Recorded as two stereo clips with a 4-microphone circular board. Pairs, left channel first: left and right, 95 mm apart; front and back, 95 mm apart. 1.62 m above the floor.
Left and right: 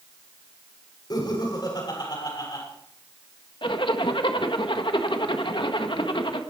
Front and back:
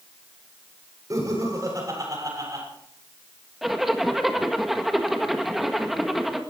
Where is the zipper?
95° left, 1.5 m.